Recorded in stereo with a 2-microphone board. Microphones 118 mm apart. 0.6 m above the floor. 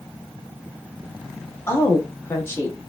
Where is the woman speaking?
25° left (ahead or behind), 0.9 m.